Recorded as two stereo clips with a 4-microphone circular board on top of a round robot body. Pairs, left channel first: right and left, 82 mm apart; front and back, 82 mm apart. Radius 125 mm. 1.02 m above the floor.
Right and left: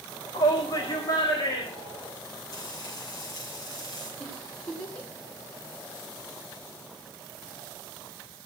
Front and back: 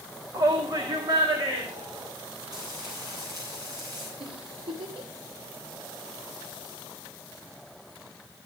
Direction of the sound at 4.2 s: 165° right.